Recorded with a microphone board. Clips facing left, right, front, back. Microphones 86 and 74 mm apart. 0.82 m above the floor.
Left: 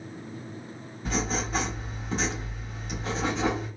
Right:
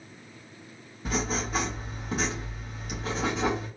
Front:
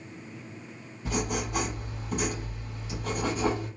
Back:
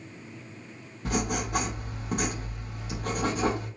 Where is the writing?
175° right, 1.3 m.